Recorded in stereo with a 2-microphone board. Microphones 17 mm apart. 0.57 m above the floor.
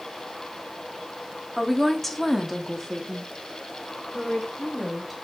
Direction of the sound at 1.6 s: 10° left (ahead or behind).